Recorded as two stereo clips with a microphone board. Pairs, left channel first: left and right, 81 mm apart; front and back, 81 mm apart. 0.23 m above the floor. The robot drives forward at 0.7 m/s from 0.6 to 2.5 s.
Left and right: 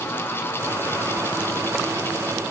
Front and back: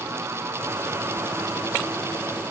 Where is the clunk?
No clunk in this recording.